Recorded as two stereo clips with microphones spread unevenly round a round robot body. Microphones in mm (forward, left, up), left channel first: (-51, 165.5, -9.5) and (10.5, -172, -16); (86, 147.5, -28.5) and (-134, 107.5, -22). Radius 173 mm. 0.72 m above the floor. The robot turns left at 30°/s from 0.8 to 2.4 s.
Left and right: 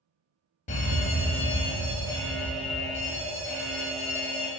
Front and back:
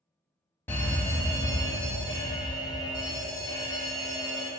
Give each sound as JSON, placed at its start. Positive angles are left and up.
{"t": 0.7, "sound": "a fire alarm", "azimuth_deg": 70, "distance_m": 1.4}